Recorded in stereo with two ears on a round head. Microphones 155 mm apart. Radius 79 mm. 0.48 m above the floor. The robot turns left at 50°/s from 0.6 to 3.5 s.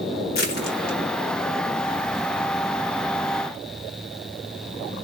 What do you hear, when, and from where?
0.3 s crushing: 60° left (ahead or behind), 1.9 m; by 2.3 s 5° right (ahead or behind), 1.9 m